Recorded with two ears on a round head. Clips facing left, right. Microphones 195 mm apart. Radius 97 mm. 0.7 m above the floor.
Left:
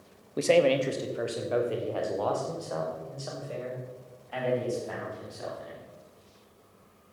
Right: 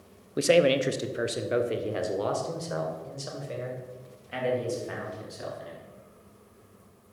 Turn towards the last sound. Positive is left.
turn(degrees=-30)  # may be behind; listen again after turning